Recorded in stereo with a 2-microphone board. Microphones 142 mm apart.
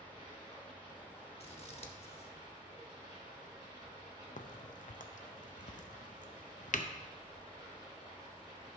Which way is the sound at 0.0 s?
30° right (ahead or behind).